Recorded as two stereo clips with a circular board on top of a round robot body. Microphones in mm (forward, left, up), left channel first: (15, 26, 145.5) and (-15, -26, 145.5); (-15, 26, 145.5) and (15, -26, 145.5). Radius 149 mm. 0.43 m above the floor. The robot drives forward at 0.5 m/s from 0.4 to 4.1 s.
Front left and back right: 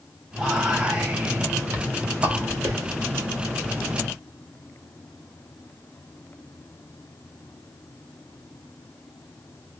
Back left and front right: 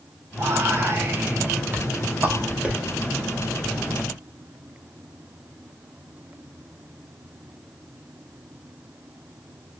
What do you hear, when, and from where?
0.4 s whispering: 45° right, 1.5 m; by 2.8 s 120° right, 1.4 m